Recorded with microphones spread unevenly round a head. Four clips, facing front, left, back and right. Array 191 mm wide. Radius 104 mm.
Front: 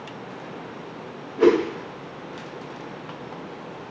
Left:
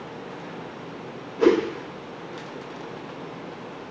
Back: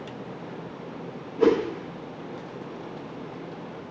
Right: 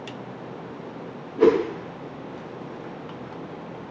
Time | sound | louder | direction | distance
1.4 | a whoosh | right 1 dB, front 3 dB | 100° right | 0.8 m